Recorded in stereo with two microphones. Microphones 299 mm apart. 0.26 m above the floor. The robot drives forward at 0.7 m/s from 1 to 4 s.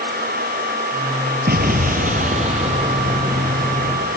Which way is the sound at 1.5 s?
30° right (ahead or behind).